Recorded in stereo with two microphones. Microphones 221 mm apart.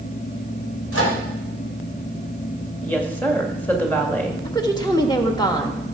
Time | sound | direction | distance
0.9 | a microwave | 90° left | 4 m
2.8 | a woman speaking | 10° left (ahead or behind) | 2 m
4.5 | a woman speaking | 20° left (ahead or behind) | 1.6 m